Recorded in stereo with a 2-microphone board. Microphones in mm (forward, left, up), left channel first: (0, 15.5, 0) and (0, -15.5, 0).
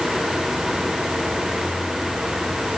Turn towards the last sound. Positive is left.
No sound to turn to.